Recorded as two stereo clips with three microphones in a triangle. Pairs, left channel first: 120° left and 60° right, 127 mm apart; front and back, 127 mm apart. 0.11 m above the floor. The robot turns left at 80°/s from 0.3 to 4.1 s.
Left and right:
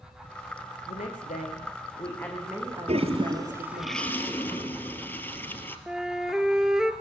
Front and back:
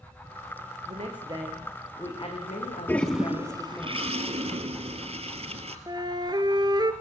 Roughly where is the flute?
Behind right.